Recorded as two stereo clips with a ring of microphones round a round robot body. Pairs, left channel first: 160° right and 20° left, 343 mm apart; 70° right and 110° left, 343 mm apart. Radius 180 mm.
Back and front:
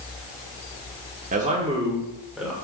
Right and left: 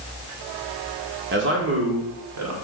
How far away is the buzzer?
I don't hear a buzzer.